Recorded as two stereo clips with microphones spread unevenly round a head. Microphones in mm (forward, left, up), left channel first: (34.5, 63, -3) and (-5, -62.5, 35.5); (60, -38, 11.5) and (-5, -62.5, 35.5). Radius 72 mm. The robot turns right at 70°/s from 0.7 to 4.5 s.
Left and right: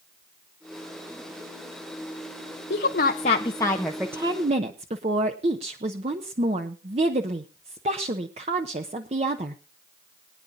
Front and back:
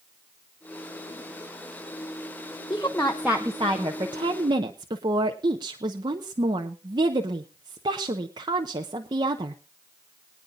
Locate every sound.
2.7 s a woman speaking: 80° left, 1.0 m; by 9.6 s 150° right, 1.0 m